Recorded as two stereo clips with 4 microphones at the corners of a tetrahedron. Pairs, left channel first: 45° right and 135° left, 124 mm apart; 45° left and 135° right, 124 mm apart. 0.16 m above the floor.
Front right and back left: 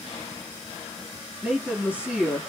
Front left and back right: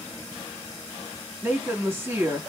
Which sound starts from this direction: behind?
A woman speaking, at 1.4 s.